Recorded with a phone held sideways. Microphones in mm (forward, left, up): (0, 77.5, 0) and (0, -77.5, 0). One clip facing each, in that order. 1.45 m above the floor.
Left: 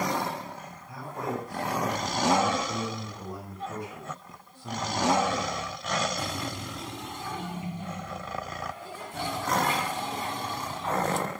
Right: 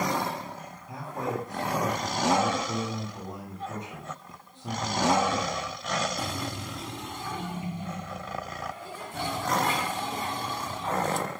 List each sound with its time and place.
0.9 s a man speaking: 20° right (ahead or behind), 10 m